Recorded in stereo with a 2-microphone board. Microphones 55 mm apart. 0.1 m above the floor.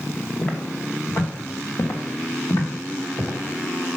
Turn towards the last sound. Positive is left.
turn(degrees=75)  # may be behind; listen again after turning